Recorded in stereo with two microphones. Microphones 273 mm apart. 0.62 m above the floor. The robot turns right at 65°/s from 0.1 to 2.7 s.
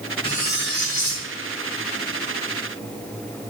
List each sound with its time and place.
0.2 s cutlery clinking: 20° left, 2.5 m; by 1.2 s 85° left, 2.5 m